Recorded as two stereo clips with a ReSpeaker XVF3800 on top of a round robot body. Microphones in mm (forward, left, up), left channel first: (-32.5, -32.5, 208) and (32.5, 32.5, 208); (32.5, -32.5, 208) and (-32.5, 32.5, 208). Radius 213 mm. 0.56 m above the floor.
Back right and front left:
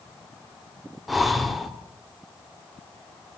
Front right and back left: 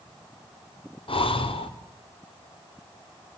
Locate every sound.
1.1 s breathing: 45° right, 2.5 m